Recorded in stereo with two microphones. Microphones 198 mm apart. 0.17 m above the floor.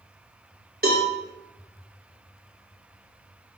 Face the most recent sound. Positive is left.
turn(degrees=-50)  # may be behind; listen again after turning